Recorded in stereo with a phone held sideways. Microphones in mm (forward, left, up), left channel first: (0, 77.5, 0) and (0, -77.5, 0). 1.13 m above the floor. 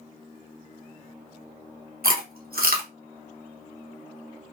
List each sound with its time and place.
2.0 s chewing: 75° right (ahead or behind), 1.0 m